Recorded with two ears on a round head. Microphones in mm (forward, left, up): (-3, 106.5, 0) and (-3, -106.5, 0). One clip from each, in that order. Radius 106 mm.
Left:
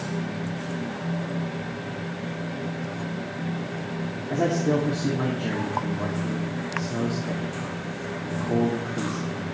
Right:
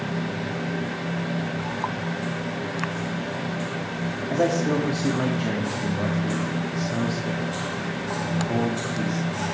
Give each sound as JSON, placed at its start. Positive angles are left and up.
{"t": 4.3, "sound": "a man speaking", "side_deg": -40, "distance_m": 1.9}